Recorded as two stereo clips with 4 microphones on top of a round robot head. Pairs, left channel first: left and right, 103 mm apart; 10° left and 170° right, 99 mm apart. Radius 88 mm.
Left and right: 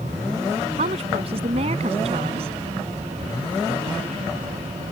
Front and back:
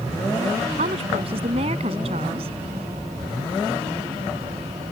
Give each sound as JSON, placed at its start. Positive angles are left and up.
{"t": 0.8, "sound": "a woman speaking", "azimuth_deg": -130}